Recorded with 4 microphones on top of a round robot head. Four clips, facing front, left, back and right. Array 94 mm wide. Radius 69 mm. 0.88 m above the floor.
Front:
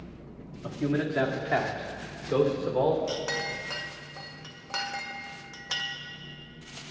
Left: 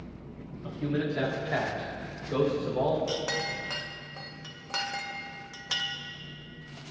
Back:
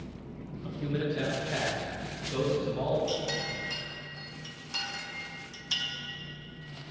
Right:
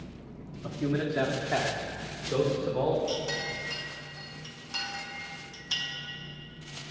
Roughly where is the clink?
Ahead left.